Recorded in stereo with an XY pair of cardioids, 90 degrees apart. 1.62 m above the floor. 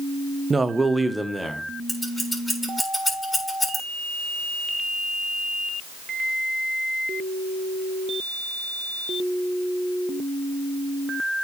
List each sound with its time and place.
0.5 s a man speaking: 30° right, 0.6 m; by 1.7 s 5° right, 1.5 m
1.9 s scissors: 10° left, 4 m